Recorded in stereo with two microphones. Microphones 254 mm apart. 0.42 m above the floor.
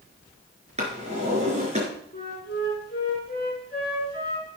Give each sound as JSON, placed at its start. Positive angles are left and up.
{"t": 0.8, "sound": "a drawer", "side_deg": -25, "distance_m": 4.0}
{"t": 2.1, "sound": "a flute", "side_deg": 40, "distance_m": 6.0}